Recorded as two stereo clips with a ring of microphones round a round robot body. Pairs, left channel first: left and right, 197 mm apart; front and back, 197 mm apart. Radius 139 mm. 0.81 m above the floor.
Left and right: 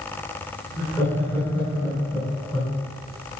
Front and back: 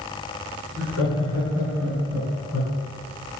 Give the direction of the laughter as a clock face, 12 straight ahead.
11 o'clock.